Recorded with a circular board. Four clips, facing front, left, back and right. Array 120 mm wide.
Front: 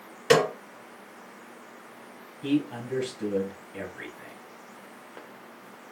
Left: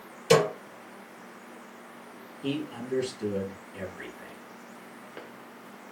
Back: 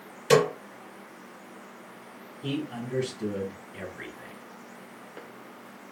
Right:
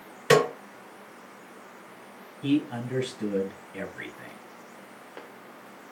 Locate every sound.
0.3 s a snare drum: 50° right, 2 m
2.4 s a man speaking: 65° right, 1.6 m